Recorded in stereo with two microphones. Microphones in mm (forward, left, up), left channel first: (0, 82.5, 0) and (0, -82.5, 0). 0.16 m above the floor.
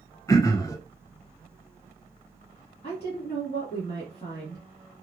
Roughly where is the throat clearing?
Left.